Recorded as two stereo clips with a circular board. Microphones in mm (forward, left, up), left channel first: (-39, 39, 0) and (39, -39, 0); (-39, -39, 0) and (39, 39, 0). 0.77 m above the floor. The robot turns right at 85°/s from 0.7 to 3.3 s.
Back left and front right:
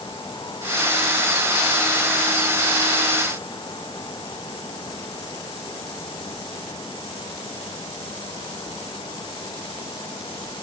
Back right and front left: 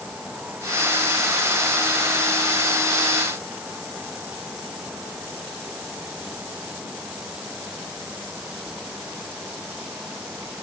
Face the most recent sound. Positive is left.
No sound to turn to.